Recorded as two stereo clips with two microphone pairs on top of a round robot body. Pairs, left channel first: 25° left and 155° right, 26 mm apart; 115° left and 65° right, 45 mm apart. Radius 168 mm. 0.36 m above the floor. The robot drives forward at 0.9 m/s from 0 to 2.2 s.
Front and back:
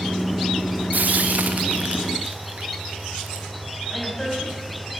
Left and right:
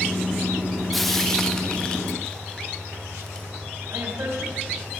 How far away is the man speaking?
About 4.5 m.